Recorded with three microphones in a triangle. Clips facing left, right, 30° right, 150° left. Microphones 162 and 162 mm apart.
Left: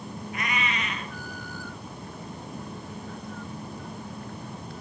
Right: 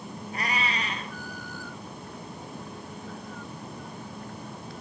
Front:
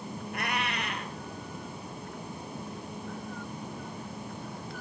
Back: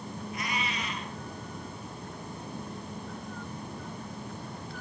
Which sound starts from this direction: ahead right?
A cat meowing, at 0.3 s.